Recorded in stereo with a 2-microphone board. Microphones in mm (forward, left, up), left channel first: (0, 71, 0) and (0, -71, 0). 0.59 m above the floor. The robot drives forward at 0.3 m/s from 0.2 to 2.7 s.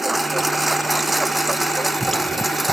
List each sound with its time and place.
0.0 s a lawn mower: centre (ahead or behind)